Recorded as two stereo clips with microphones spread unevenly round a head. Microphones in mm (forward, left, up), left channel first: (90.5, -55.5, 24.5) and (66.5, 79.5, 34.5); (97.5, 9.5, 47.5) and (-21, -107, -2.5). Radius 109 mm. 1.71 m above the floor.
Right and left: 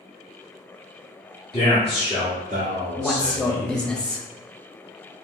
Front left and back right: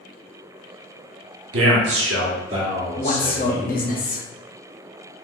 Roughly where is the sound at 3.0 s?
Ahead.